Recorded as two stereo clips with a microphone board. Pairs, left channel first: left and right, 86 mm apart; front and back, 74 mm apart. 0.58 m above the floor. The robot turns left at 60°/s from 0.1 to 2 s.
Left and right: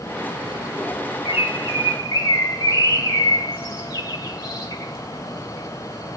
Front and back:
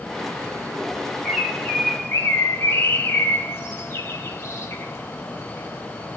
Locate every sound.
1.2 s a bird: 100° left, 0.7 m; by 6.2 s 55° left, 0.7 m